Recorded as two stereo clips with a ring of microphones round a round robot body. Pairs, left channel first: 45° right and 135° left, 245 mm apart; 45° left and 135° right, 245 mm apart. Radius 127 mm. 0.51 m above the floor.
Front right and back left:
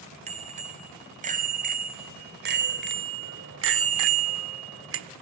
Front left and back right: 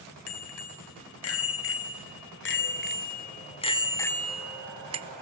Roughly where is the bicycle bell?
Left.